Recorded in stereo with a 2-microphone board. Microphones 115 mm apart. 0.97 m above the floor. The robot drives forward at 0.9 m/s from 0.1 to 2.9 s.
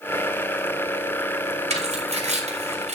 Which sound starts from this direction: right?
Tearing paper, at 1.7 s.